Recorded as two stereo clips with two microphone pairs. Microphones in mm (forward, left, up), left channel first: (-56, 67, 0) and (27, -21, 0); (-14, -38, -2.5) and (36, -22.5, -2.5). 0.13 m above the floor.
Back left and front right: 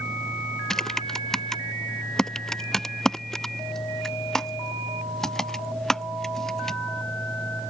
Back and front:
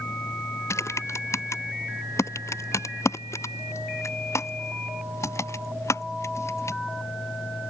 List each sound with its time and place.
0.7 s typing on a keyboard: 140° right